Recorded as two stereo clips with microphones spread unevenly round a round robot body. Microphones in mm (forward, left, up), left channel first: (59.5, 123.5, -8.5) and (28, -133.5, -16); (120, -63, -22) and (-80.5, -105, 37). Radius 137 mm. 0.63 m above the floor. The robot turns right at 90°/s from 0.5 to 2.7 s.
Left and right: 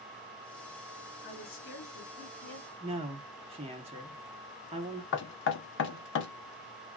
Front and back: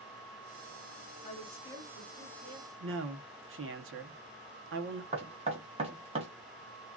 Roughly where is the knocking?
Behind left.